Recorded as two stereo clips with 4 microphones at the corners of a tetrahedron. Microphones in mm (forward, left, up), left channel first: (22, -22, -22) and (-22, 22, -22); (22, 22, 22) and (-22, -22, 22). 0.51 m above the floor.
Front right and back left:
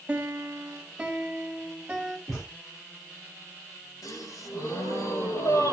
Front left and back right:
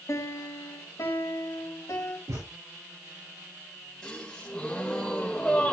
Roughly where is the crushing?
I don't hear crushing.